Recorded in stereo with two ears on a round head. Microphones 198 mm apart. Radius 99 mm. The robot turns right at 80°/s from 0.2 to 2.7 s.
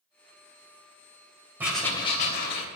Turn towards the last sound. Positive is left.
turn(degrees=80)